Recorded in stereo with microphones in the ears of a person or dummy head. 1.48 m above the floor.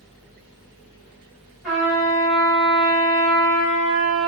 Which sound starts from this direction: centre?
A trumpet, at 1.6 s.